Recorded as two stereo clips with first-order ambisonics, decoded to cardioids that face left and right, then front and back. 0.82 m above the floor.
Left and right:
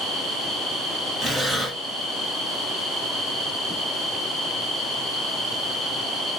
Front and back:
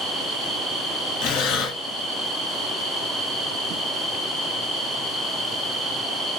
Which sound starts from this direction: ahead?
Breathing, at 1.2 s.